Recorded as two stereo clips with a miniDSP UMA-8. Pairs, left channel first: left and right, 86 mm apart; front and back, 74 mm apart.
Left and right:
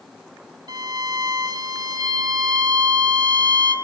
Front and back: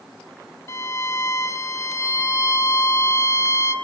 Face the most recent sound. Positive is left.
turn(degrees=-50)